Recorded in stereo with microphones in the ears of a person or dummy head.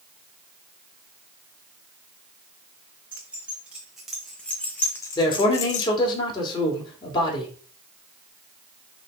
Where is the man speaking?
25° left (ahead or behind), 2.5 m.